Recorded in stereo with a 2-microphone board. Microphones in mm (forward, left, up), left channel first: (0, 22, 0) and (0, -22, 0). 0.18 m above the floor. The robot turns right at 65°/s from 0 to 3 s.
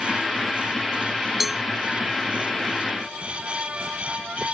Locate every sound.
1.4 s a cowbell: 5° right (ahead or behind); by 1.6 s centre (ahead or behind)